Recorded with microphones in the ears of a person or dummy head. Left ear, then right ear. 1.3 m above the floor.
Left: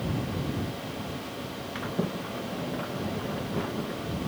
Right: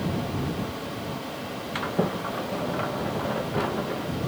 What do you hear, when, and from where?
1.8 s a sliding door: 30° right (ahead or behind)